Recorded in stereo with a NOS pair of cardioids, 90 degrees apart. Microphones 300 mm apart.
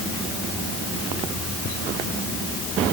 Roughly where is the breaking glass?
No breaking glass in this recording.